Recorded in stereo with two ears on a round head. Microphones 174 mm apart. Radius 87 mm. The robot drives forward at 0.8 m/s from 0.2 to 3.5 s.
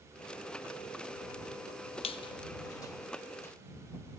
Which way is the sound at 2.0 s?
30° left (ahead or behind).